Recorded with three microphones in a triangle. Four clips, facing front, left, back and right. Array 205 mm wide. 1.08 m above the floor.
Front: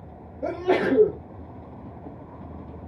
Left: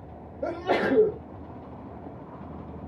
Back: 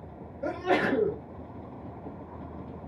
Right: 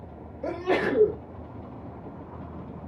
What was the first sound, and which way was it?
A sneeze, 65° left.